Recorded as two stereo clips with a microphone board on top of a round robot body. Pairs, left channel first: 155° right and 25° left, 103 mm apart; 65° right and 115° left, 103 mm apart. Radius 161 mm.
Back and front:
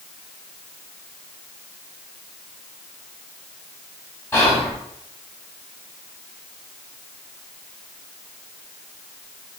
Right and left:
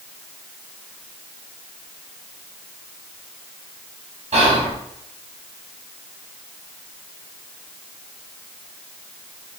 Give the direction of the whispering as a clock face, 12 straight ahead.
7 o'clock.